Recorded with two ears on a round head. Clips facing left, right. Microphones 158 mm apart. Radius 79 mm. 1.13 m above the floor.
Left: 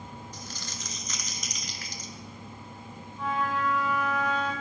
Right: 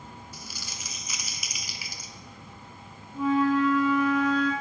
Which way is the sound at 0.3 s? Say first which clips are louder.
Left 2 dB; 10° right (ahead or behind).